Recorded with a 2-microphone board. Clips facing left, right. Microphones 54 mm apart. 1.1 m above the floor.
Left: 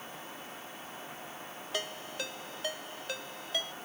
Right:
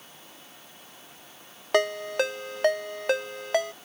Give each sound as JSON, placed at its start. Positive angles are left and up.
{"t": 1.7, "sound": "a ringtone", "side_deg": -70}